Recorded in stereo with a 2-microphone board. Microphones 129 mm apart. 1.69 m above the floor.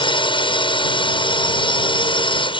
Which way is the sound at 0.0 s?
45° left (ahead or behind).